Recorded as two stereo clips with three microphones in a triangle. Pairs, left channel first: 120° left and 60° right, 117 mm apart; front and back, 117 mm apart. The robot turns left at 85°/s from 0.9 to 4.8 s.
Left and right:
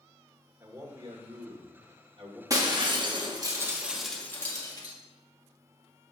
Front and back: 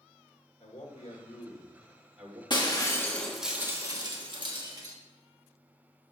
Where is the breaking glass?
15° right, 1.2 m; by 5.0 s 145° left, 1.2 m.